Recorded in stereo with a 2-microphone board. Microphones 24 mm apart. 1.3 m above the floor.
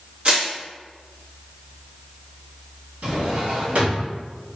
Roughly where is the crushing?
Right.